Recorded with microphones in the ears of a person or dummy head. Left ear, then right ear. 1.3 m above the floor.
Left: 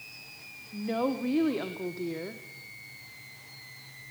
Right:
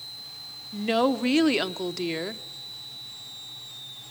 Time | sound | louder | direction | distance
0.7 | a woman speaking | right 7 dB | 65° right (ahead or behind) | 1.0 m